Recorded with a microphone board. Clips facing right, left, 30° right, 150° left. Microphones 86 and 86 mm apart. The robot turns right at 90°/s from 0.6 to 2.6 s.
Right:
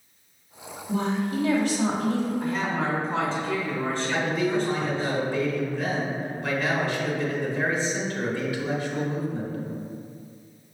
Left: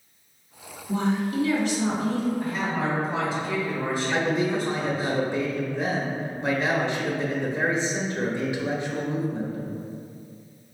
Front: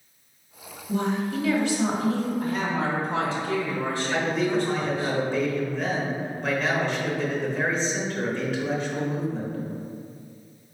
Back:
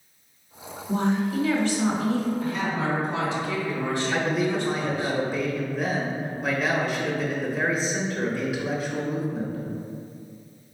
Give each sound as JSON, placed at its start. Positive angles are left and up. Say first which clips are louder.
{"t": 0.9, "sound": "a woman speaking", "louder": "left 1 dB, back 2 dB", "azimuth_deg": -170, "distance_m": 1.4}
{"t": 2.4, "sound": "a woman speaking", "louder": "even, front 1 dB", "azimuth_deg": 0, "distance_m": 1.2}
{"t": 4.1, "sound": "a man speaking", "louder": "left 1 dB, front 2 dB", "azimuth_deg": 80, "distance_m": 0.9}